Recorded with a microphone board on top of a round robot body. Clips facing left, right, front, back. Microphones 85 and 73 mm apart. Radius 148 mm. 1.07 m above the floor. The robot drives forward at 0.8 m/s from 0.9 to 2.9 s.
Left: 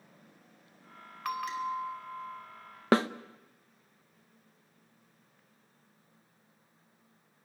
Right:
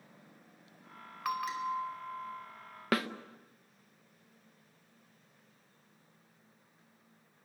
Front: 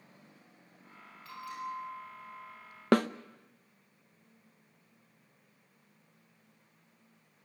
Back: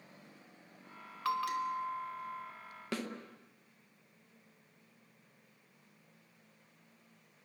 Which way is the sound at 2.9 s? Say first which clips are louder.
Left 7 dB, front 14 dB; 30° left.